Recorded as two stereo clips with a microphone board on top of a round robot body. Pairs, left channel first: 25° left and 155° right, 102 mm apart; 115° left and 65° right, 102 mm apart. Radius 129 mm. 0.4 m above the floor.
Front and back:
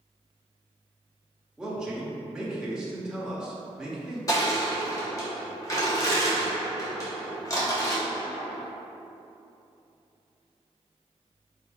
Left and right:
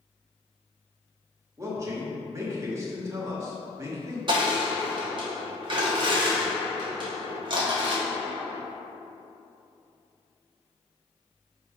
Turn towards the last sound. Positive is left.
turn(degrees=-30)